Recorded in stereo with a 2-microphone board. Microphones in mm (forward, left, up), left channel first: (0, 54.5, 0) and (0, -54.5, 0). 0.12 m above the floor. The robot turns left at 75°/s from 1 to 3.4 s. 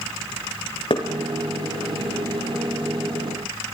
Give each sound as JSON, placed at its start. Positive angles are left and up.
{"t": 0.9, "sound": "knocking", "side_deg": 55, "distance_m": 3.0}